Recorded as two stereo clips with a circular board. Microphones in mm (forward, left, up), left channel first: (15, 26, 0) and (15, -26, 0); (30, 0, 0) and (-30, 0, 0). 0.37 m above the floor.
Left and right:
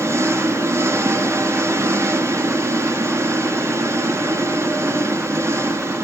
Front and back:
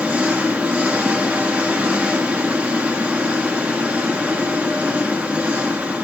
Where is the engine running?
115° right, 3 m.